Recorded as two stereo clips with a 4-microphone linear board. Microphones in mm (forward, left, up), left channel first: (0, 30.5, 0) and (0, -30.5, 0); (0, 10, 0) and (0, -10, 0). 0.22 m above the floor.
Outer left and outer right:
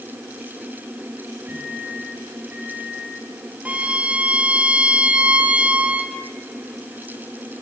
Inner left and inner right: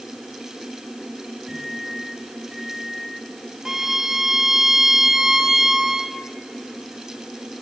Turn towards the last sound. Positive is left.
turn(degrees=-20)  # may be behind; listen again after turning